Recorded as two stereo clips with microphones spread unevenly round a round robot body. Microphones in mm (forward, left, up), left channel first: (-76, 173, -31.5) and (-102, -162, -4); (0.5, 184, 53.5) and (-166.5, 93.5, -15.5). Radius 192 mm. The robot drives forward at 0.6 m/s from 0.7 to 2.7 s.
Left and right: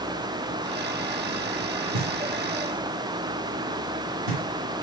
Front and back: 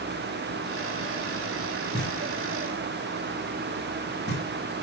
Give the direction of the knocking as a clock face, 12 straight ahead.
3 o'clock.